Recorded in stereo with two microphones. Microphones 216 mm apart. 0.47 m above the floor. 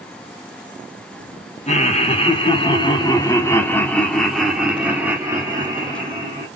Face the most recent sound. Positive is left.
turn(degrees=-20)  # may be behind; listen again after turning